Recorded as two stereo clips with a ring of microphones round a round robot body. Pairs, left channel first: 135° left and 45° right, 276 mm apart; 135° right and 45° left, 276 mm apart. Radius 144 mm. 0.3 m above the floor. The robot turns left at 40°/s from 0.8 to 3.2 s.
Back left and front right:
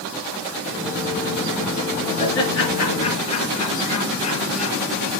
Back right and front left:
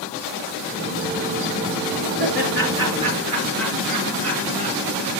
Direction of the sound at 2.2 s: 100° left.